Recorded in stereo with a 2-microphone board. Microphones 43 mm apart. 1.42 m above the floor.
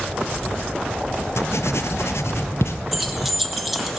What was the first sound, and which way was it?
Writing, 75° left (ahead or behind).